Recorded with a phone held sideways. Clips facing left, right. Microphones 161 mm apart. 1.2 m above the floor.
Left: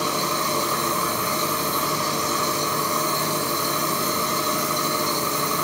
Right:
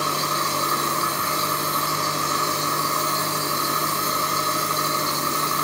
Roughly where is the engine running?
Centre.